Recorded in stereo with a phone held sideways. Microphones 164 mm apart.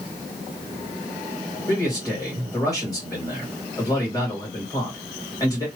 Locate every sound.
1.7 s a man speaking: 20° left (ahead or behind), 1.8 m